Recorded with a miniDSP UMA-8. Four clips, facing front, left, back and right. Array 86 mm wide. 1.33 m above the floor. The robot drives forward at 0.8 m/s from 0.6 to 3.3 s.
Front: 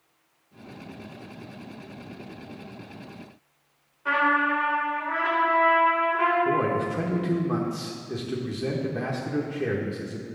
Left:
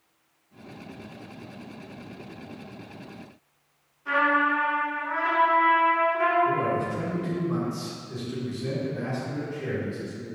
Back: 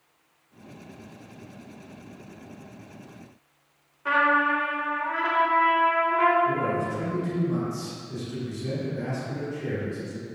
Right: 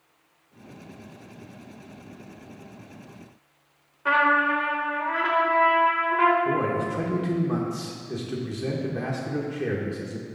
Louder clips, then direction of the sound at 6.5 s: Even, front 2 dB; 35° right.